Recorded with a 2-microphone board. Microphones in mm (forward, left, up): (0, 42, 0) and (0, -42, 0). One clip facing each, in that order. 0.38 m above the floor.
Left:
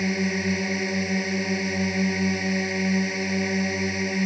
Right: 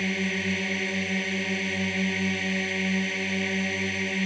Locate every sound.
0.0 s a drone: 15° left (ahead or behind)